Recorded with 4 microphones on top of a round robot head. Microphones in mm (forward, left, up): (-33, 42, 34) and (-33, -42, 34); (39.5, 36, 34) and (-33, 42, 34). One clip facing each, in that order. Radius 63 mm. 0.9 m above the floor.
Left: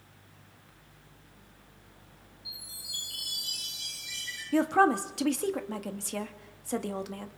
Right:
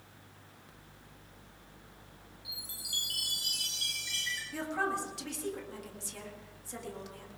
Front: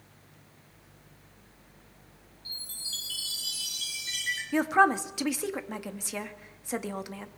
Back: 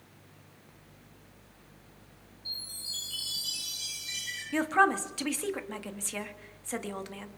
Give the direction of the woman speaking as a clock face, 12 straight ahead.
10 o'clock.